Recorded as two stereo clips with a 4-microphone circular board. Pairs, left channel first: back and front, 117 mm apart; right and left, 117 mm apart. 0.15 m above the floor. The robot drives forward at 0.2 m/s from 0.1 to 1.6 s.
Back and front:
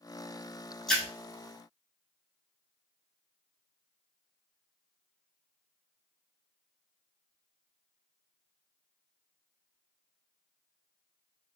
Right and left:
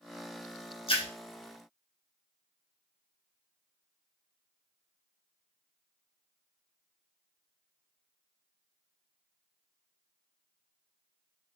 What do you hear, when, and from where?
0.9 s a splash: 95° right, 1.2 m